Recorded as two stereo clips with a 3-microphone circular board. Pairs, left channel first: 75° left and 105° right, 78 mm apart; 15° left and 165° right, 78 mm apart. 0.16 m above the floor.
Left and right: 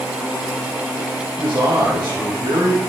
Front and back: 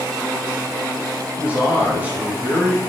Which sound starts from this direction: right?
A man speaking, at 1.4 s.